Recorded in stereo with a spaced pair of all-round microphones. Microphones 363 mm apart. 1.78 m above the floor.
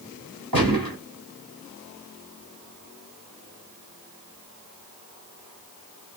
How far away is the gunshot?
About 7.5 m.